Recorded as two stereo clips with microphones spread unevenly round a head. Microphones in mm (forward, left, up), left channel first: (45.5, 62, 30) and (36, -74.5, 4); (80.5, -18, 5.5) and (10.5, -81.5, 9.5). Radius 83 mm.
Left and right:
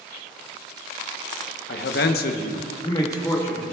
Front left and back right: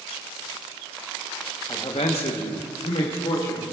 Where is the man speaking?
115° left, 0.9 m; by 3.6 s 10° left, 1.9 m.